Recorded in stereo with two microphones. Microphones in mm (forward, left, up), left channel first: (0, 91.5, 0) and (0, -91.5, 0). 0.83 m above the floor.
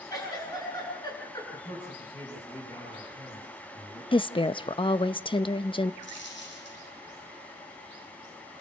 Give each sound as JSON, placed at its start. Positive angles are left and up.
{"t": 0.1, "sound": "a giggle", "side_deg": 20, "distance_m": 9.0}
{"t": 1.5, "sound": "a man speaking", "side_deg": 25, "distance_m": 8.5}
{"t": 4.1, "sound": "a woman speaking", "side_deg": 30, "distance_m": 0.7}
{"t": 6.0, "sound": "a dropped coin", "side_deg": 85, "distance_m": 8.0}